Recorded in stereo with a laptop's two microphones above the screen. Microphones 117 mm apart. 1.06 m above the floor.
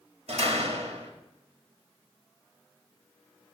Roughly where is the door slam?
Right.